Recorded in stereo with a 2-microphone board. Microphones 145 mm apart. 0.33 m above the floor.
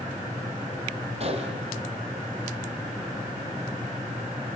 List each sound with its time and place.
1.2 s a gunshot: 45° right (ahead or behind), 3 m